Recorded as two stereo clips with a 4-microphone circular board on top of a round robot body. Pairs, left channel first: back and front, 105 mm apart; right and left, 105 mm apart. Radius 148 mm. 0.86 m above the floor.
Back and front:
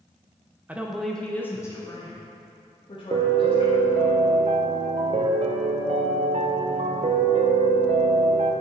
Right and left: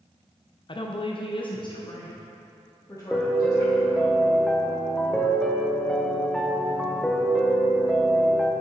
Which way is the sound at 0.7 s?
70° right.